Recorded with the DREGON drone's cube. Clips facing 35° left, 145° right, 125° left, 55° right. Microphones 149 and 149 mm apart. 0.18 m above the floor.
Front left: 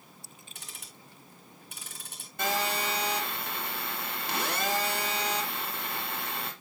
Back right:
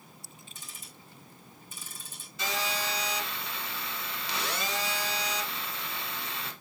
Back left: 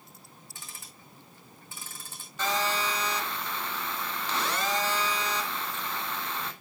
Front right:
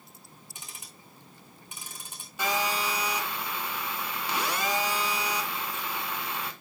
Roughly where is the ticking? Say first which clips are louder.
Even, even; ahead.